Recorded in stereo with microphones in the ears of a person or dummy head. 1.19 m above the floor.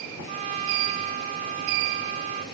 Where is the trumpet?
40° right (ahead or behind), 2.5 m.